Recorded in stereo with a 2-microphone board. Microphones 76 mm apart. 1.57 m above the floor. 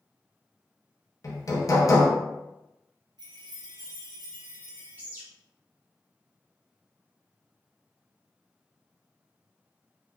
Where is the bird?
20° right (ahead or behind), 0.8 m.